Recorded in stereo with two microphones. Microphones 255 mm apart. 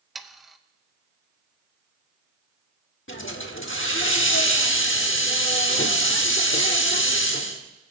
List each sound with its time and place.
0.1 s sawing: centre (ahead or behind), 0.6 m
3.1 s a hiss: 50° left (ahead or behind), 1.1 m